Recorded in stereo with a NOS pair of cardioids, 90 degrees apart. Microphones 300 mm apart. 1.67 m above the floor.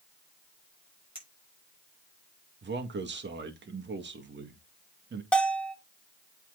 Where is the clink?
20° right, 5.5 m.